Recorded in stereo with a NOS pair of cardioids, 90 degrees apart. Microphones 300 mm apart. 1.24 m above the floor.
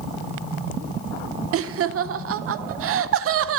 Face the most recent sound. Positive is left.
turn(degrees=-50)